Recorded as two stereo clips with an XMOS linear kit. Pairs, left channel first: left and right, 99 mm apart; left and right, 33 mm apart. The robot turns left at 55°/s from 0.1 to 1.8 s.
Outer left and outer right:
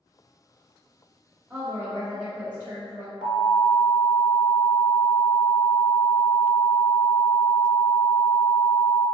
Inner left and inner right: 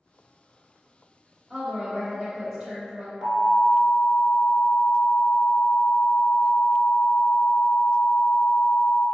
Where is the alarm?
10° right (ahead or behind), 1.2 m.